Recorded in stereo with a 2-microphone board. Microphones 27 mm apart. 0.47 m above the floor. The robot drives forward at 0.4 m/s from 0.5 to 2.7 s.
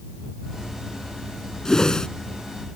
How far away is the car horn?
No car horn in this recording.